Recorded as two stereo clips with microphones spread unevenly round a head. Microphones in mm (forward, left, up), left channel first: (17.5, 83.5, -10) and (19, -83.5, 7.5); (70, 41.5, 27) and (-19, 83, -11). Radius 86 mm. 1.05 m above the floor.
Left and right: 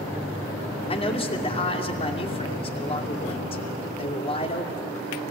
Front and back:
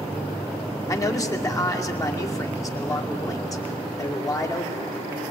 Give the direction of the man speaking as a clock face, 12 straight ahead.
11 o'clock.